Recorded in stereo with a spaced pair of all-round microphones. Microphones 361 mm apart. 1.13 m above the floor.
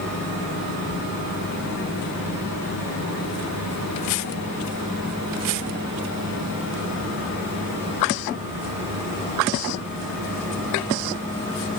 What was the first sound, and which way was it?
Only background noise.